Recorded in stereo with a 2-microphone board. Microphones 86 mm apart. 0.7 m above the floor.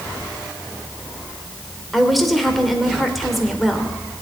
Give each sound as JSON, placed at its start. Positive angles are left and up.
{"t": 1.9, "sound": "a woman speaking", "side_deg": 0, "distance_m": 2.0}